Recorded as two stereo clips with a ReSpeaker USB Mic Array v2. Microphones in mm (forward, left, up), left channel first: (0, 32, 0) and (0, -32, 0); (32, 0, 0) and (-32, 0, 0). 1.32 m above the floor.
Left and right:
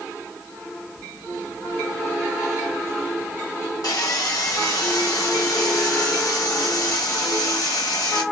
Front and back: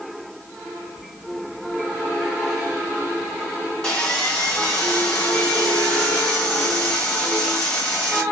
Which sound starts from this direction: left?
Sawing, at 3.8 s.